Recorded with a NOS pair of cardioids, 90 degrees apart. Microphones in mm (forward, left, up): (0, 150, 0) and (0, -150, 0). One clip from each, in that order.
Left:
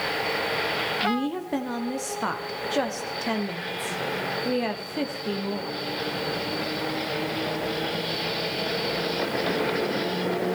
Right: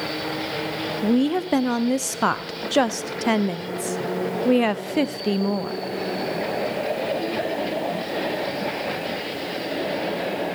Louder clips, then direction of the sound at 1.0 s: Right 4 dB; 40° right.